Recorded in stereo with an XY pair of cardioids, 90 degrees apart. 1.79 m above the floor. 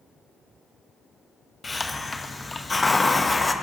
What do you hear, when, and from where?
1.6 s a hiss: 25° left, 0.7 m